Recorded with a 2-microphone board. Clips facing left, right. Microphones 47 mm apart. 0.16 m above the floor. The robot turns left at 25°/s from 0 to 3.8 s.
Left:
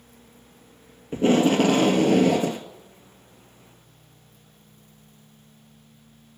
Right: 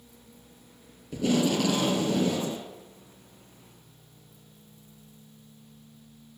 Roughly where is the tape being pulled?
Behind left.